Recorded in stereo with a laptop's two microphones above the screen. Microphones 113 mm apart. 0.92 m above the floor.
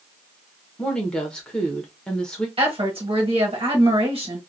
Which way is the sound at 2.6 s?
60° right (ahead or behind).